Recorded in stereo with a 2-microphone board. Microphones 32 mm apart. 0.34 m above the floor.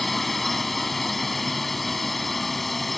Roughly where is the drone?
Centre.